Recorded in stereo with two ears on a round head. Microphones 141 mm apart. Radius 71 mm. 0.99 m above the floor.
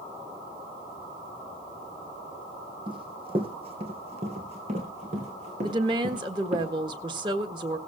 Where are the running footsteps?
35° right (ahead or behind), 2.5 m; by 6.6 s 50° right (ahead or behind), 5 m.